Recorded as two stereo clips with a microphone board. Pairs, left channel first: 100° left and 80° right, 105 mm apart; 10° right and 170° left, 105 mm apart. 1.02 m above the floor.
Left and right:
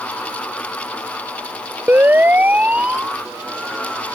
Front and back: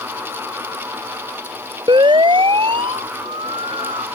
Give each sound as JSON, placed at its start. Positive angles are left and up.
{"t": 1.9, "sound": "a siren", "azimuth_deg": -150}